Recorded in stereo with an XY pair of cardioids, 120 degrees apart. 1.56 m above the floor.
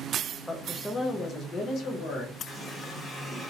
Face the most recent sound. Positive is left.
turn(degrees=15)